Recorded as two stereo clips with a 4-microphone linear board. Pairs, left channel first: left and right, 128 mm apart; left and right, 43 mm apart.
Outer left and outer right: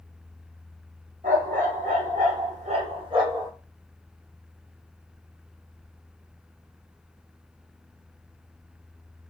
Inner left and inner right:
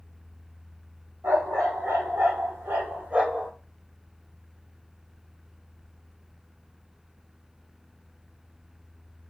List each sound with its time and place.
1.2 s a dog barking: 85° right, 1.2 m; by 3.5 s 20° right (ahead or behind), 0.7 m